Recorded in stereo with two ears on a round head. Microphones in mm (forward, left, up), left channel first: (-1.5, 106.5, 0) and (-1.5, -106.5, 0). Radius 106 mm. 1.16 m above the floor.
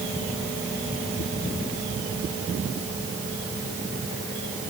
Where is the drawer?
No drawer in this recording.